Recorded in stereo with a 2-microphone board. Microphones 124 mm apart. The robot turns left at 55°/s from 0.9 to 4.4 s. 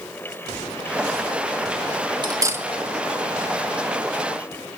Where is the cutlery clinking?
35° right (ahead or behind), 1.7 m; by 2.6 s 15° right (ahead or behind), 1.7 m.